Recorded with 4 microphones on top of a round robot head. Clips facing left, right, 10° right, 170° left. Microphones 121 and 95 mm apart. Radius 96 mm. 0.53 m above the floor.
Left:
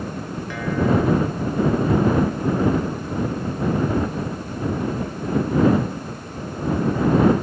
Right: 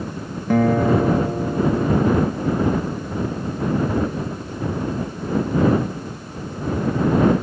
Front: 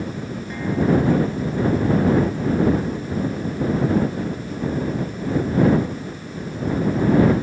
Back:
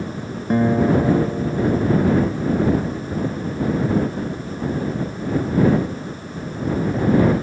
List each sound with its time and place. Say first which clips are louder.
0.5 s a guitar: right 5 dB, back 3 dB; 135° right